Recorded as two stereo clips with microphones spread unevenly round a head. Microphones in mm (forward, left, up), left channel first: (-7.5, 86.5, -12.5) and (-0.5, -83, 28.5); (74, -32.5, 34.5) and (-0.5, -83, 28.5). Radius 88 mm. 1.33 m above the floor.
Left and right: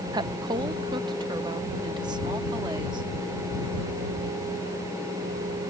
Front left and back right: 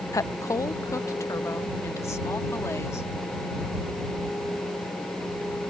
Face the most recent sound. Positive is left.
turn(degrees=-20)